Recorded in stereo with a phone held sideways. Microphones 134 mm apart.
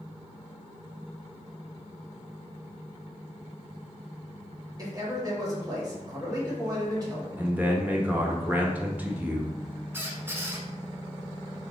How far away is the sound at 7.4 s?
About 0.8 m.